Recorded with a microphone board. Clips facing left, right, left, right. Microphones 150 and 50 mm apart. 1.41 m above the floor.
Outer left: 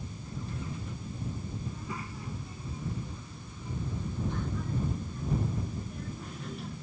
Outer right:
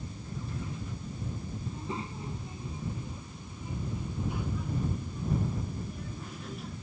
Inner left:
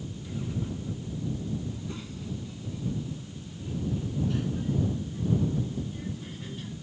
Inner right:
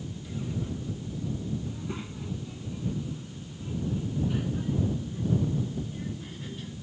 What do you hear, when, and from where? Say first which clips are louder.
1.7 s a child speaking: outer right 2 dB, inner right 1 dB; 25° right (ahead or behind); by 6.8 s centre (ahead or behind)